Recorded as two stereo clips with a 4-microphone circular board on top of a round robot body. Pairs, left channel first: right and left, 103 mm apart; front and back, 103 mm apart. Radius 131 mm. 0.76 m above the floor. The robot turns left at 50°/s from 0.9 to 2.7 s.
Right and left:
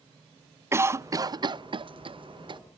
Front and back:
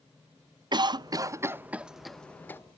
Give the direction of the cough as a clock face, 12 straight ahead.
7 o'clock.